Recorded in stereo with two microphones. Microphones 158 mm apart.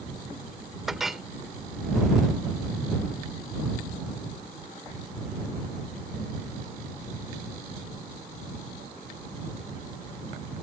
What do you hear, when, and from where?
0.9 s a clink: centre (ahead or behind)